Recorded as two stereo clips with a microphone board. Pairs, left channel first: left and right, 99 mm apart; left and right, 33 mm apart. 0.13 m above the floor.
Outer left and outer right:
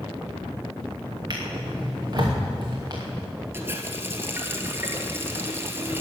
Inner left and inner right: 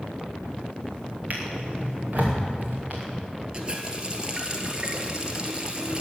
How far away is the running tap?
About 1.6 m.